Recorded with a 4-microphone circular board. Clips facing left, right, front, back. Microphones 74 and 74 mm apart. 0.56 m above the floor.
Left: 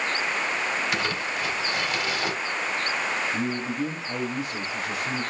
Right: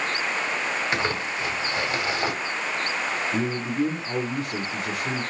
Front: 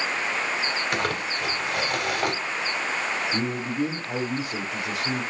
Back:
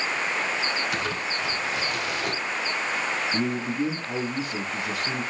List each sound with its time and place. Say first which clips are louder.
0.9 s crumpling: right 1 dB, front 2 dB; 30° right, 2.5 m
3.3 s a man speaking: right 2 dB, back 1 dB; 65° right, 5 m